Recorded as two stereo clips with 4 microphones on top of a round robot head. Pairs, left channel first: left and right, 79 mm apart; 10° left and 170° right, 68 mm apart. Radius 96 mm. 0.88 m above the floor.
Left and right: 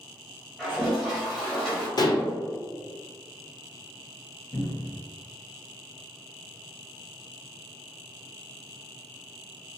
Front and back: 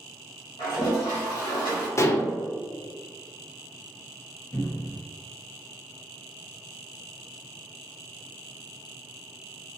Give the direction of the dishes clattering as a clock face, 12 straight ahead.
10 o'clock.